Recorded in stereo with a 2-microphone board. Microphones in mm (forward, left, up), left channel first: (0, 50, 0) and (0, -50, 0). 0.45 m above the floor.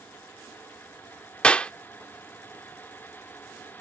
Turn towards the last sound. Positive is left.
turn(degrees=10)  # may be behind; listen again after turning